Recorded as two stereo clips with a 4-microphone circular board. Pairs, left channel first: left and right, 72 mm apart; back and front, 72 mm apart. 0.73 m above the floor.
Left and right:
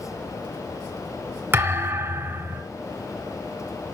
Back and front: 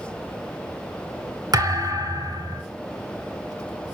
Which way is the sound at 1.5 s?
25° right.